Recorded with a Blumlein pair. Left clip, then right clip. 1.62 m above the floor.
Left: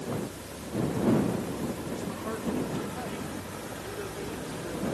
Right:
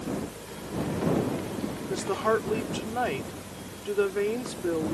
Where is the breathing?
No breathing in this recording.